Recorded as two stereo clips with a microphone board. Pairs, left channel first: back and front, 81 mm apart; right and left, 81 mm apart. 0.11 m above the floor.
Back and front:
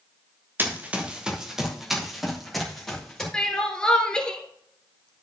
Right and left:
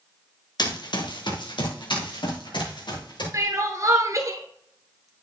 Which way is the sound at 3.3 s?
105° left.